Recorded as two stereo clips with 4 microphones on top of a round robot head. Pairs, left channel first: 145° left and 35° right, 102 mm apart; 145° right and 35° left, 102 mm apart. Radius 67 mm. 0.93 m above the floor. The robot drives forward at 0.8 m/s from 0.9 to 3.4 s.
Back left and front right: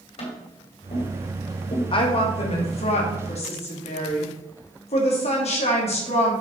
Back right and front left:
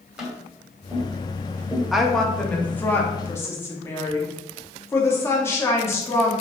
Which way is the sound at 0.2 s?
120° left.